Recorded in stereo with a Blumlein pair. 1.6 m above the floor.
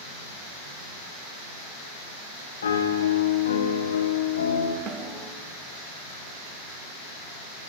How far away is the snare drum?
About 1.7 m.